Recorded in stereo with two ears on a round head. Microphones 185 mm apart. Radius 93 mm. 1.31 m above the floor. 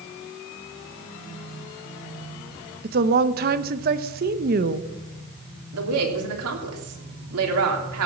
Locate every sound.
2.8 s a woman speaking: 45° right (ahead or behind), 1.0 m
5.7 s a woman speaking: 90° right, 3 m